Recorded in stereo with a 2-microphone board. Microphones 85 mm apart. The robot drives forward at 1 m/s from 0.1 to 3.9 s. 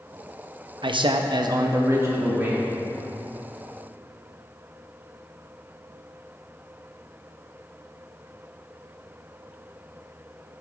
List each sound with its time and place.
0.8 s a man speaking: 65° right (ahead or behind), 0.7 m; by 2.7 s 20° right (ahead or behind), 1.8 m